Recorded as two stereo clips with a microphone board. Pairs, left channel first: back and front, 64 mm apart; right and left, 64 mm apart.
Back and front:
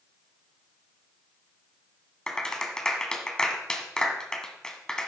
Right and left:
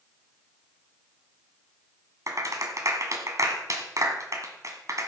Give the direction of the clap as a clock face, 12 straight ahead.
9 o'clock.